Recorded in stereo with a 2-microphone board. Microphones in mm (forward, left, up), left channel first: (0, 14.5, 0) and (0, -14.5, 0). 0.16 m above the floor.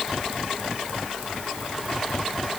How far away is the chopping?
No chopping in this recording.